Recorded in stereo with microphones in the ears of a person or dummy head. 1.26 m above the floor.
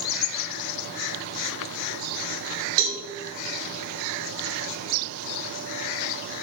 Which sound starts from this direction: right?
A cowbell, at 2.8 s.